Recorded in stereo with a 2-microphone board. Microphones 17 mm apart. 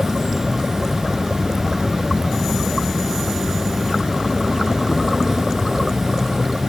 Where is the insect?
30° right (ahead or behind).